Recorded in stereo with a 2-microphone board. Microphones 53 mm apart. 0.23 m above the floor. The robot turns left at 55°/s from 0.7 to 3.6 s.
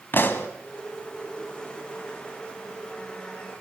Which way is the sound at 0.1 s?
40° left (ahead or behind).